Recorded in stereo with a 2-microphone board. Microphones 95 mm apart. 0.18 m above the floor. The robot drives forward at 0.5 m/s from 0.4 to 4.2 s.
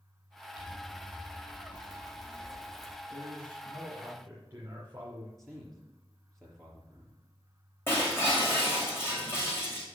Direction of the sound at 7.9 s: 25° left (ahead or behind).